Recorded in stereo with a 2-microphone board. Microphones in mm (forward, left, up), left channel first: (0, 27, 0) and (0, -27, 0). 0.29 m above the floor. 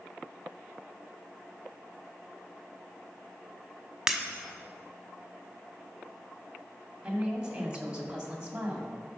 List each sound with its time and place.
4.1 s breaking glass: 10° right (ahead or behind), 1.2 m
7.0 s a woman speaking: 20° right (ahead or behind), 2 m